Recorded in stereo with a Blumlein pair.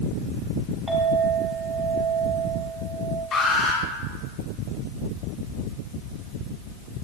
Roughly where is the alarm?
Ahead.